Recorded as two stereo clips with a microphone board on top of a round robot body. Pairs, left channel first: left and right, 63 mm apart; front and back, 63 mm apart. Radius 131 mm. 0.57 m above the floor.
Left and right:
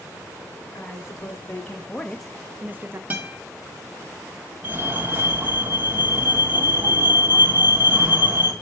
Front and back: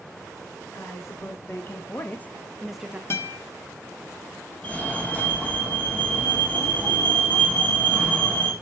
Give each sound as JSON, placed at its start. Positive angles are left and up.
{"t": 0.7, "sound": "a woman speaking", "azimuth_deg": 40, "distance_m": 1.7}
{"t": 3.1, "sound": "a guitar", "azimuth_deg": -30, "distance_m": 1.6}
{"t": 4.6, "sound": "a fire alarm", "azimuth_deg": -45, "distance_m": 2.5}